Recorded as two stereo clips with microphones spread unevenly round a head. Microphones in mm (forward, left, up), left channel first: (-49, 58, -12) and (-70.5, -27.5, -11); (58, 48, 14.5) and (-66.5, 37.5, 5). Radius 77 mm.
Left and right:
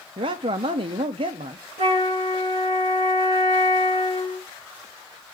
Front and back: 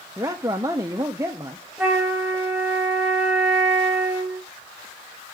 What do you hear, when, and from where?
0.2 s a man speaking: 100° right, 0.7 m
1.8 s a flute: 85° right, 3 m